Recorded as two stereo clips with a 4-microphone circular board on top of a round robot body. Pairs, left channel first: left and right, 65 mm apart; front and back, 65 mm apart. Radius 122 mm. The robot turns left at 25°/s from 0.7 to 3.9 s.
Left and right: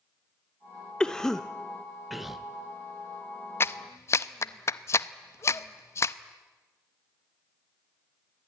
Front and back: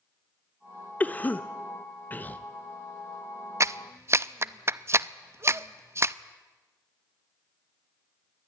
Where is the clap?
140° left, 0.7 m; by 6.2 s 135° left, 0.7 m.